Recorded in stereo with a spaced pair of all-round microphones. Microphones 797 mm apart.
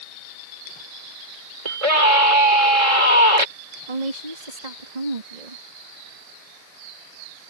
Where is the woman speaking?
60° right (ahead or behind).